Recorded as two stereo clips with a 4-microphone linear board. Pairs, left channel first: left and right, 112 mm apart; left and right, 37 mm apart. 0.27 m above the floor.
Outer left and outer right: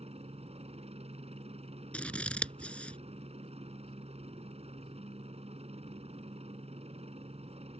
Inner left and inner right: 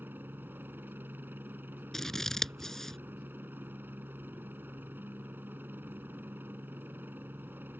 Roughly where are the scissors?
Centre.